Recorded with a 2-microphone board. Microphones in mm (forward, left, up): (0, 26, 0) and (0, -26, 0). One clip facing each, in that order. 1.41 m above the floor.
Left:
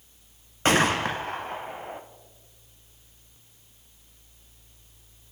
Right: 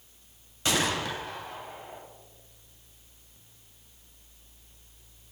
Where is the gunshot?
45° left (ahead or behind), 0.8 m.